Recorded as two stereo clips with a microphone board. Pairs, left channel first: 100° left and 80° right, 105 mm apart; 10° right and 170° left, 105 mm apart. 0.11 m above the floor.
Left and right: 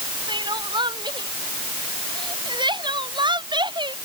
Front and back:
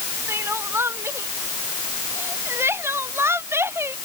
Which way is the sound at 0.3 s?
125° right.